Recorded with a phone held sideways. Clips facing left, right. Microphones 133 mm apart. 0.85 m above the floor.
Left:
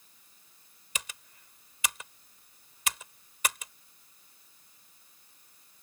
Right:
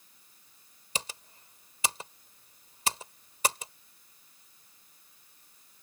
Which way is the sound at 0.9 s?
35° right (ahead or behind).